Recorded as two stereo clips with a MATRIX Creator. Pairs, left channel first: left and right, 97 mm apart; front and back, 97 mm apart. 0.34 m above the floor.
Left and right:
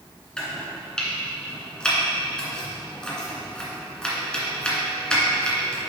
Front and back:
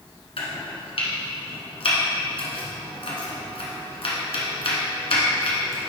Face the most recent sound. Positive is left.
turn(degrees=10)